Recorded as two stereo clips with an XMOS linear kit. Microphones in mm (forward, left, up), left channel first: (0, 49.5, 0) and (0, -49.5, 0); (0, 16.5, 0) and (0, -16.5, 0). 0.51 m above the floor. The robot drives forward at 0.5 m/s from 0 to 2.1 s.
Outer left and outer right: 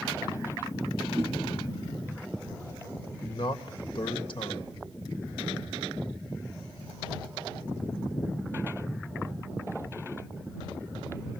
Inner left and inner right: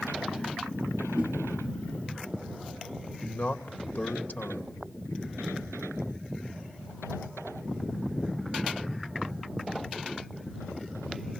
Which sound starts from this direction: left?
A man speaking, at 3.2 s.